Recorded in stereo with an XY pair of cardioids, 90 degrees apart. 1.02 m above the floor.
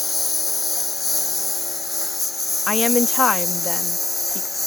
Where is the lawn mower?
30° left; by 4.7 s 15° left.